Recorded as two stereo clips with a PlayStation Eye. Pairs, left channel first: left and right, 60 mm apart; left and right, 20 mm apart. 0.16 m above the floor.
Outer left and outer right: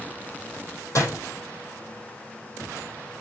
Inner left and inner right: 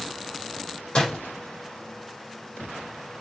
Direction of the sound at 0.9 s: 55° left (ahead or behind).